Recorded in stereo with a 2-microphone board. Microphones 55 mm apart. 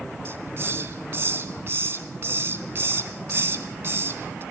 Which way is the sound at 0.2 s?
45° right (ahead or behind).